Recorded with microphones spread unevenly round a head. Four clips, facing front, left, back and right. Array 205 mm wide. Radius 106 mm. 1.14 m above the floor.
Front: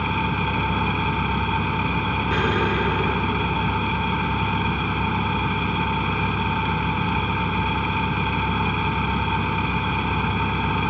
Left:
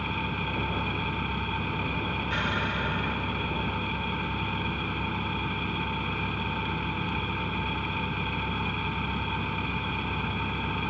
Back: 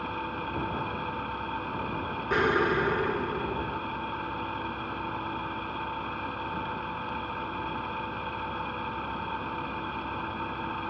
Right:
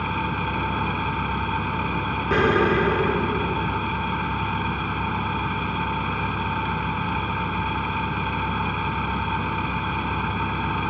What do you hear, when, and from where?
0.0 s an engine running: 5° right
2.3 s an explosion: 80° right